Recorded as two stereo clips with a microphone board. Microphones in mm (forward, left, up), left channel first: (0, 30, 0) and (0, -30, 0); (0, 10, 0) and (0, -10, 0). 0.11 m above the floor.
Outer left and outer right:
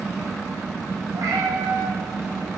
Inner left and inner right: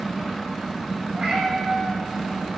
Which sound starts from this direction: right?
A cat meowing, at 1.1 s.